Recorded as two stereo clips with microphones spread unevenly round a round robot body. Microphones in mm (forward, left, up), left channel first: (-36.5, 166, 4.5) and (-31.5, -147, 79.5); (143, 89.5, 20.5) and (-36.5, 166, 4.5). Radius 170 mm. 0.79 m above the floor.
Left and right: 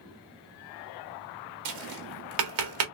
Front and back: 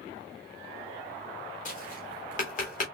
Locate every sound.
1.6 s tapping: 80° right, 1.5 m